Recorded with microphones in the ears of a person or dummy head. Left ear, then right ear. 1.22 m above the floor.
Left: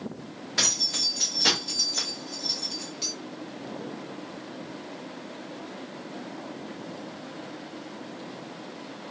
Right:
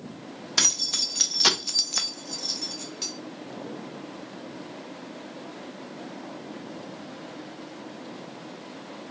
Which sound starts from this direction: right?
Keys jangling, at 0.6 s.